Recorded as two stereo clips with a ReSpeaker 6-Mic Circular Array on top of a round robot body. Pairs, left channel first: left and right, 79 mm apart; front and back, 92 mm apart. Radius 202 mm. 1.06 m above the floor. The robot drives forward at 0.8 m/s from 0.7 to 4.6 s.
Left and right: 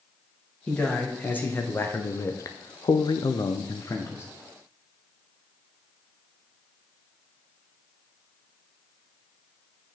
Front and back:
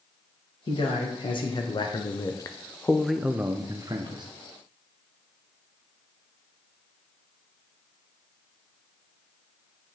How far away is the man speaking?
About 2 m.